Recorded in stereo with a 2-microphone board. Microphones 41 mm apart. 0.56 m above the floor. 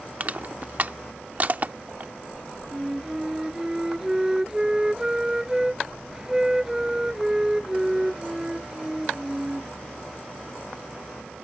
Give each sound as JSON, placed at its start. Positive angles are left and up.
{"t": 0.2, "sound": "crushing", "side_deg": -40}
{"t": 2.7, "sound": "a flute", "side_deg": -15}